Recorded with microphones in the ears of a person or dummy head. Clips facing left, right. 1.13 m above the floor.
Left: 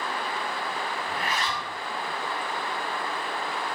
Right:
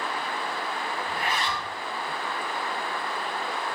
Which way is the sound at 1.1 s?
20° right (ahead or behind).